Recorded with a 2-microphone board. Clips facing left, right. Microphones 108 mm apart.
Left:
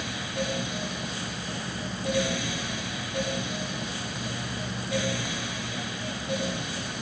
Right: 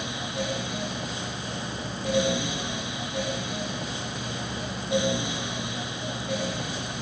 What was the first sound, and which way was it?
Only background noise.